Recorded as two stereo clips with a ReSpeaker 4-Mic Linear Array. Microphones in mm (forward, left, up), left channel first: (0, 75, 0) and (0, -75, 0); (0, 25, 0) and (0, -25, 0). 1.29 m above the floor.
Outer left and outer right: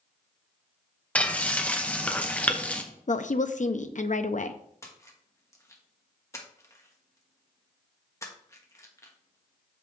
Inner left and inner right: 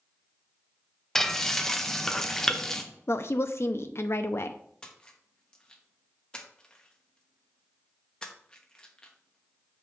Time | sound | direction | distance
1.1 | frying | 10° left (ahead or behind) | 0.7 m
3.1 | a woman speaking | 55° left (ahead or behind) | 0.5 m
4.8 | a splash | 20° left (ahead or behind) | 1.2 m